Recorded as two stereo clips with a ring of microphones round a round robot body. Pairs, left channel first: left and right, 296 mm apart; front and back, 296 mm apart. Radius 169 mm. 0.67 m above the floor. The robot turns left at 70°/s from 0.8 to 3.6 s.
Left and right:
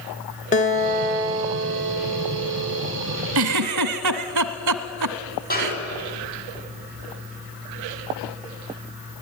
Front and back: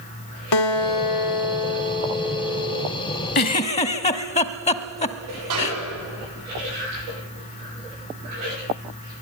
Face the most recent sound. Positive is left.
turn(degrees=150)